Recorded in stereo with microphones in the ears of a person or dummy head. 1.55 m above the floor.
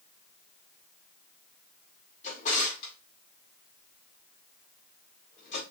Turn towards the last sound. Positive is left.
turn(degrees=45)  # may be behind; listen again after turning